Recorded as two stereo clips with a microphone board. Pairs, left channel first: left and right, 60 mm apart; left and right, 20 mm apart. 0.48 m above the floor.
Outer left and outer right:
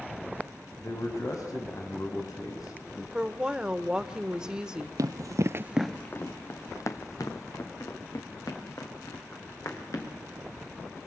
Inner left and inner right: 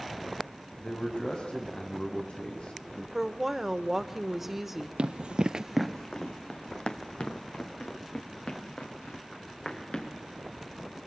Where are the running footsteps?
70° right (ahead or behind), 1.1 m; by 10.1 s 70° left (ahead or behind), 5.5 m.